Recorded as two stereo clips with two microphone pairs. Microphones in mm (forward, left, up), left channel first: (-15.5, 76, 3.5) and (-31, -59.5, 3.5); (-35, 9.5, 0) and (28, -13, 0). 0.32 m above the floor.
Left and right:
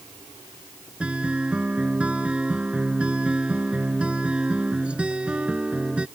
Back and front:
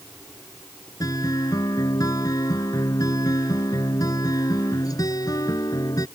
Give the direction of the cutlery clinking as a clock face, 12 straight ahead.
No cutlery clinking in this recording.